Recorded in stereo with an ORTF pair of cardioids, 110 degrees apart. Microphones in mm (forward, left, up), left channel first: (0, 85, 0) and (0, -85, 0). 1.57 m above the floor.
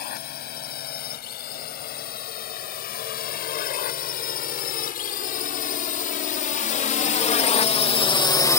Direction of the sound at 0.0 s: 65° left.